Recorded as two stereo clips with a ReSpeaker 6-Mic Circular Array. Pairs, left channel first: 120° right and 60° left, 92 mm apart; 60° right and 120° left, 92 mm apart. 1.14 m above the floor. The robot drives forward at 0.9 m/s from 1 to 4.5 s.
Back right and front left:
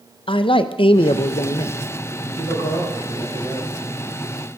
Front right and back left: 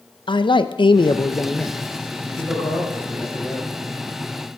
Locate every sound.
0.3 s a man speaking: 95° right, 0.6 m; by 1.8 s 140° right, 1.0 m
2.2 s a man speaking: 110° right, 5 m; by 3.7 s 120° right, 6 m